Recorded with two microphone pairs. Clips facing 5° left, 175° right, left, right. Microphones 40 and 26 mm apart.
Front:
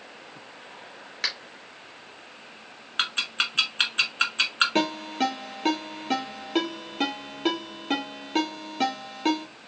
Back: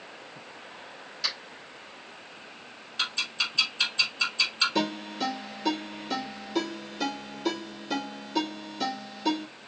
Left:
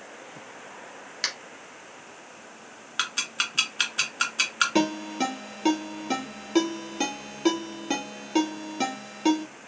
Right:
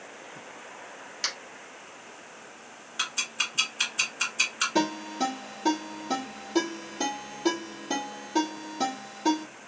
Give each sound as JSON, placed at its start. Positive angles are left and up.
{"t": 1.2, "sound": "a finger snap", "azimuth_deg": 35, "distance_m": 3.0}
{"t": 3.0, "sound": "ticking", "azimuth_deg": 40, "distance_m": 1.8}
{"t": 4.8, "sound": "a ringtone", "azimuth_deg": 45, "distance_m": 3.0}